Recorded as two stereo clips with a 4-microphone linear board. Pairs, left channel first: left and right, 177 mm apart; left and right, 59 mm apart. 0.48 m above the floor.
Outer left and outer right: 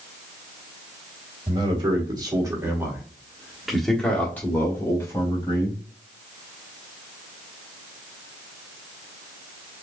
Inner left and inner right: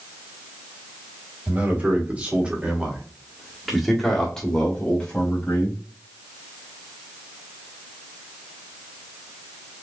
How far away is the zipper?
No zipper in this recording.